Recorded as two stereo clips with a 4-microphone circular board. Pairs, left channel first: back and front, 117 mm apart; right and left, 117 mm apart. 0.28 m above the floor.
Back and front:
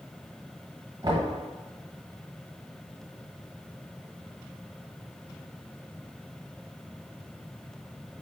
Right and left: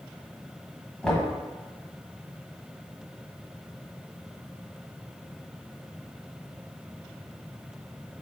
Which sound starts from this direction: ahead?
Knocking, at 1.0 s.